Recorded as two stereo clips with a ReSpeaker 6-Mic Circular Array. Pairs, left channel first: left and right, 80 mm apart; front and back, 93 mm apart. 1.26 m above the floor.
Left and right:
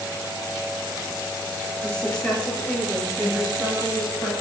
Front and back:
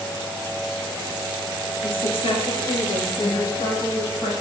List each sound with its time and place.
1.8 s a woman speaking: 10° left, 0.7 m